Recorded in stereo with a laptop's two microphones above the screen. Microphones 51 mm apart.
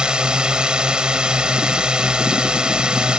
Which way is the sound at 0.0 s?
15° right (ahead or behind).